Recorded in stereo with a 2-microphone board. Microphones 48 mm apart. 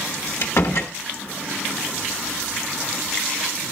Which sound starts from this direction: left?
A door slam, at 0.4 s.